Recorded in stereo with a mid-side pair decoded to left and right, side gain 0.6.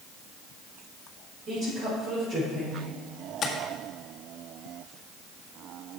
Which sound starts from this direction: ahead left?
Tapping, at 3.4 s.